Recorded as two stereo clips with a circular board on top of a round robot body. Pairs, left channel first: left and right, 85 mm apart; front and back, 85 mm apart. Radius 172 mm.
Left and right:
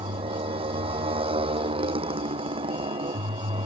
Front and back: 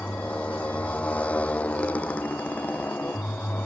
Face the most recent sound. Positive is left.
turn(degrees=-75)